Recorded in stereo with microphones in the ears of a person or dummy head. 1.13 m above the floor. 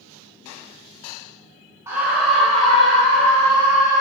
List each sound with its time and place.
1.9 s a scream: 10° right (ahead or behind), 0.6 m; by 4.0 s 20° left (ahead or behind), 1.6 m